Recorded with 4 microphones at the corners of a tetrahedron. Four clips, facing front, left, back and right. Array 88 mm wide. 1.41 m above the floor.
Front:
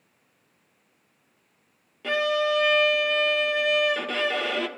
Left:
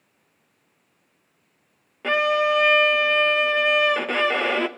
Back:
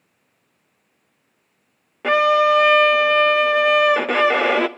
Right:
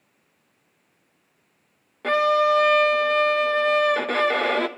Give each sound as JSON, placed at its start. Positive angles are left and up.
{"t": 2.0, "sound": "a violin", "azimuth_deg": -170, "distance_m": 0.5}